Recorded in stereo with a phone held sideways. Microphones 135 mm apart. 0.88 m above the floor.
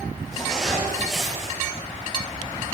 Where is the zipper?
Centre (ahead or behind), 3 m.